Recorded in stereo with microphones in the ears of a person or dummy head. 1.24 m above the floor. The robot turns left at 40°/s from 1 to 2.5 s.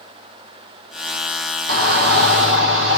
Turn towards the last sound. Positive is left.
turn(degrees=-95)